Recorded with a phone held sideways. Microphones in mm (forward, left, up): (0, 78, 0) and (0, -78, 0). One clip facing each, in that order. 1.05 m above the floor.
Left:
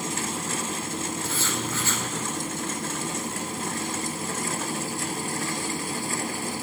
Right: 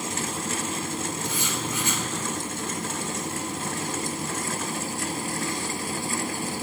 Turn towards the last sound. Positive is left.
turn(degrees=-15)  # may be behind; listen again after turning